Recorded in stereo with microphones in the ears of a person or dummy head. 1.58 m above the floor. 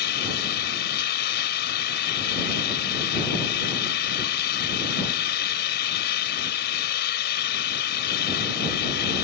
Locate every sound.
0.0 s an engine running: 60° left (ahead or behind)